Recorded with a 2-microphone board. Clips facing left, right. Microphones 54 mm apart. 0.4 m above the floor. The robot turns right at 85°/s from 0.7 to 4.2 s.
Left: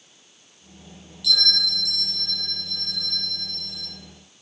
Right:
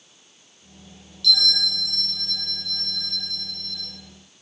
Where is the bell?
160° left, 1.9 m; by 3.9 s 25° left, 1.9 m.